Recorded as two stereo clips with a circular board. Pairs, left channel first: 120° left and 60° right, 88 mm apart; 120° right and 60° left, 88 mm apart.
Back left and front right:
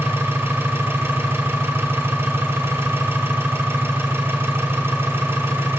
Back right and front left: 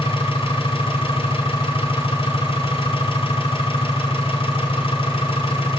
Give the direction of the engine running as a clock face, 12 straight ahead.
4 o'clock.